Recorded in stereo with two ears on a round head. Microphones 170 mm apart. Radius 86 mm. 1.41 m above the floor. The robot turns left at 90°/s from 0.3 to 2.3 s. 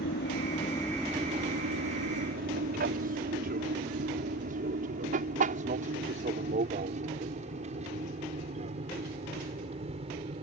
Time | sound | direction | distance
0.0 | an aircraft | 60° left (ahead or behind) | ?